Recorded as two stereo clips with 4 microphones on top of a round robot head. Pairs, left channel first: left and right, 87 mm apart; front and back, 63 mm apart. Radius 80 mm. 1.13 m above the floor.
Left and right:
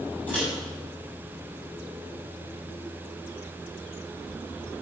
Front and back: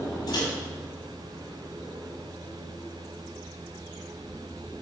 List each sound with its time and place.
0.3 s a microwave: 10° left, 5.5 m